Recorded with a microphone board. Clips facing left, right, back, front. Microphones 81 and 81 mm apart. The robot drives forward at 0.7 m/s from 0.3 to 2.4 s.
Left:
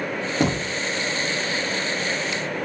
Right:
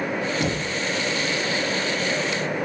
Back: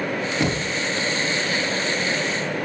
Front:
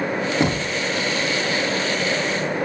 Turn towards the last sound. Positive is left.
turn(degrees=120)